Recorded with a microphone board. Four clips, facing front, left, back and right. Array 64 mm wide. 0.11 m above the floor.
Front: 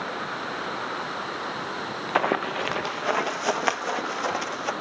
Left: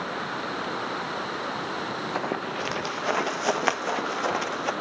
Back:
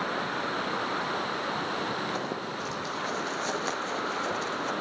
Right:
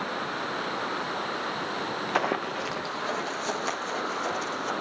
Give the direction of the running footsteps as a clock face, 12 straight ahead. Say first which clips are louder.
Right 4 dB, front 9 dB; 1 o'clock.